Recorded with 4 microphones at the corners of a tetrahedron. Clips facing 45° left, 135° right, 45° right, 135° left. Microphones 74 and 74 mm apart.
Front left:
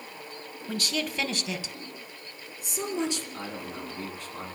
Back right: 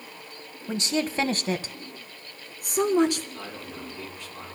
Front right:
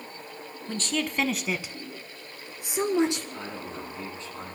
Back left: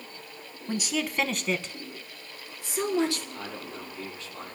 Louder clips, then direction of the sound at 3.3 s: Front left 1 dB, front right 2 dB; 15° left.